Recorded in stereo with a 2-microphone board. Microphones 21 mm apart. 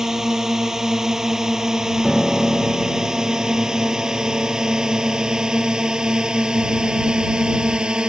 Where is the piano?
10° left (ahead or behind).